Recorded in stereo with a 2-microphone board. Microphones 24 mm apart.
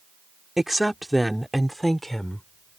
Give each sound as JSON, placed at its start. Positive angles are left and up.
{"t": 0.6, "sound": "a woman speaking", "side_deg": -15}